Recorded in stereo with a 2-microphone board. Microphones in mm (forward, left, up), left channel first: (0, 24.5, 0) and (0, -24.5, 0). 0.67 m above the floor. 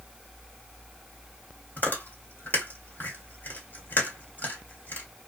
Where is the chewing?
40° left (ahead or behind), 1.6 m.